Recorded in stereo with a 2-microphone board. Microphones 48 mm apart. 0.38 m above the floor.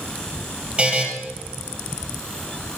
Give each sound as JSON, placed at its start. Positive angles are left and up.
{"t": 0.8, "sound": "a buzzer", "side_deg": -25, "distance_m": 2.5}